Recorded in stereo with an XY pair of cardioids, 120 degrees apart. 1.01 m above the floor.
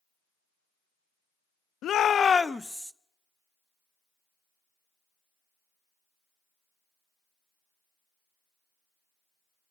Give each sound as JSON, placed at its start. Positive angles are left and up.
{"t": 1.8, "sound": "a shout", "azimuth_deg": 60, "distance_m": 1.0}